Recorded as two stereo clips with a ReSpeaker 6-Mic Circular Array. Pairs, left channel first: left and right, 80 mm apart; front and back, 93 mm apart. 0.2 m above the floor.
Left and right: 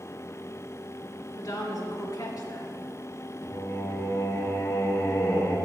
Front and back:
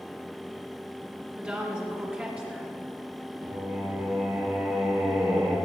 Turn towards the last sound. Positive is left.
turn(degrees=160)